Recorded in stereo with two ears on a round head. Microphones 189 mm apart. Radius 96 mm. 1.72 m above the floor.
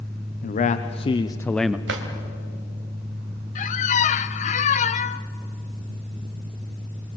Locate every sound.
0.4 s a man speaking: 40° left (ahead or behind), 1.0 m; by 1.8 s 5° right (ahead or behind), 0.5 m
1.9 s a drawer: 60° right (ahead or behind), 2.5 m
3.5 s a squeak: 35° left (ahead or behind), 0.7 m